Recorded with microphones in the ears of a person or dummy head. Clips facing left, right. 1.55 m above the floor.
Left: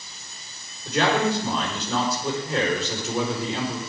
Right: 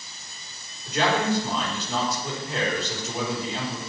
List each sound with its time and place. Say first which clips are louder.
0.8 s a man speaking: left 2 dB; 80° left, 4.5 m